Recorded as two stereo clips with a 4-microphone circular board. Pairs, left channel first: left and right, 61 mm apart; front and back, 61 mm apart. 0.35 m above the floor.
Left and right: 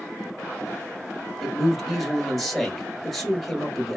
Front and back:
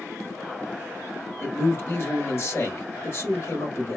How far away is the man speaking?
About 1.3 m.